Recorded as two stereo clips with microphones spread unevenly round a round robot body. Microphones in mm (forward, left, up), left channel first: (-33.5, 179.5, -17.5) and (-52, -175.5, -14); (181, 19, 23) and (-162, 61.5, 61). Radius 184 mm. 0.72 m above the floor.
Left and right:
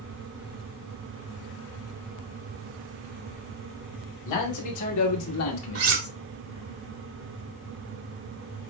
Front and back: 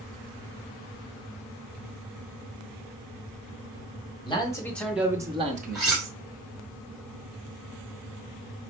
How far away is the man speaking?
About 2.0 m.